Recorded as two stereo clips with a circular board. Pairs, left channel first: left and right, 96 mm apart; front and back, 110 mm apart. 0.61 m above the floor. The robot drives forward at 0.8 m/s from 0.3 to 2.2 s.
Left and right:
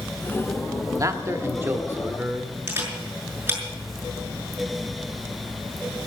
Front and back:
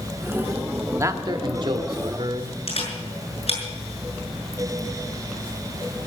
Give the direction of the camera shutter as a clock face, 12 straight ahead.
1 o'clock.